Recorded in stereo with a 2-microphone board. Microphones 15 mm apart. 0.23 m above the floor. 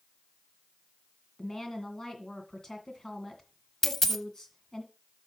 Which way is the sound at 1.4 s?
45° left (ahead or behind).